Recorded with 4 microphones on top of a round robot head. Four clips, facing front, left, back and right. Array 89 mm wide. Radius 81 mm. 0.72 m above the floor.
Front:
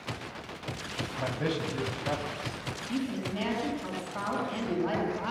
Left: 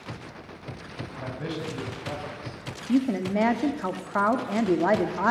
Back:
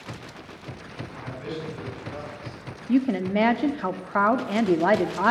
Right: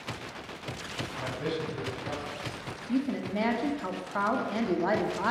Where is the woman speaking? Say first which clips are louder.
Left 6 dB, back 11 dB; 155° left, 1.7 m.